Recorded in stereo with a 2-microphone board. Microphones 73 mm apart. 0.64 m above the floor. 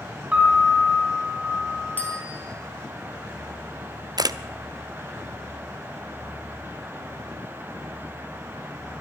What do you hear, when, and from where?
0.3 s a piano: 15° right (ahead or behind), 4 m
2.0 s a bicycle bell: 25° left (ahead or behind), 4.5 m
4.2 s a camera shutter: 60° right (ahead or behind), 0.5 m